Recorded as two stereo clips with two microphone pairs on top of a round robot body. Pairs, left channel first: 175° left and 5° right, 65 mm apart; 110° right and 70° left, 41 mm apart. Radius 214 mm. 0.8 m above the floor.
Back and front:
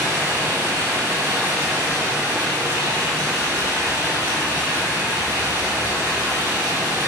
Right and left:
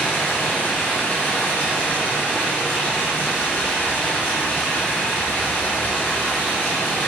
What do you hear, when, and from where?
0.0 s running water: 70° right, 3.5 m